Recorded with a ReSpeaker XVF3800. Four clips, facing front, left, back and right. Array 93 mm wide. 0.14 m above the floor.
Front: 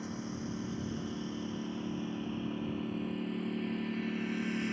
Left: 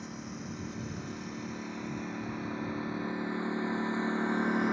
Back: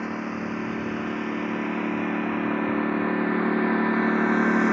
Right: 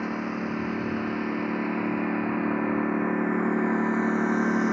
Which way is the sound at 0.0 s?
135° right.